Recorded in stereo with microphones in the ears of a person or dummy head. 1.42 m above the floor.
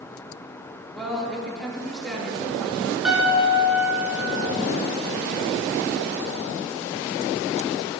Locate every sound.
0.9 s a woman speaking: centre (ahead or behind), 3 m
3.0 s a piano: centre (ahead or behind), 3 m